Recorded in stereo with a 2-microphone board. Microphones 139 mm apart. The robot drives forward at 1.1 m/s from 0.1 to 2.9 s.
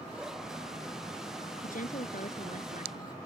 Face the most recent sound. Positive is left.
turn(degrees=70)  # may be behind; listen again after turning